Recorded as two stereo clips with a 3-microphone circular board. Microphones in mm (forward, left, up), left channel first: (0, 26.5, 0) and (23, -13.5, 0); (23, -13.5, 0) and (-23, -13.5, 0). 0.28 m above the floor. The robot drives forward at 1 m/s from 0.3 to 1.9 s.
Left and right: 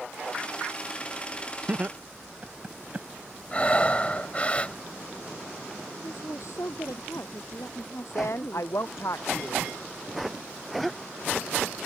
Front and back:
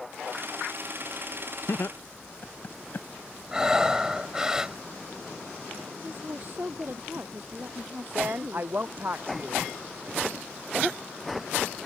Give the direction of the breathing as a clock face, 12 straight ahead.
8 o'clock.